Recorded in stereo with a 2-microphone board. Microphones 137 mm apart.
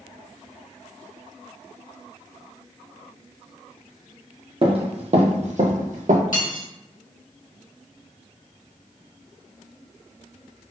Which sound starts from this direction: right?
Running footsteps, at 4.6 s.